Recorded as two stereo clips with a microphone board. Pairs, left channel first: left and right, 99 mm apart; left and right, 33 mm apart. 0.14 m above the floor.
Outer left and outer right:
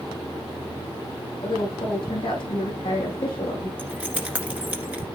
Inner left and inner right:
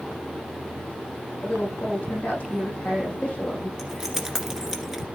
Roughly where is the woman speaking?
Left.